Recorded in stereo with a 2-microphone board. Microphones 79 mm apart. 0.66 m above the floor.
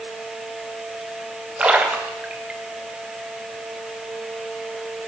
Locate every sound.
1.6 s a splash: 15° right (ahead or behind), 3 m